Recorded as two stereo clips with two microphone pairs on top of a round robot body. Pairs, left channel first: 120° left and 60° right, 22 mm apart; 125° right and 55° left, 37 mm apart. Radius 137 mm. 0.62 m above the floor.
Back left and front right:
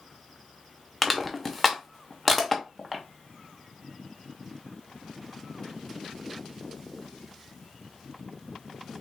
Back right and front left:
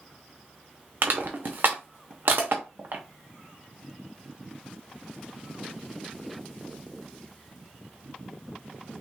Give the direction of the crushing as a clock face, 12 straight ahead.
11 o'clock.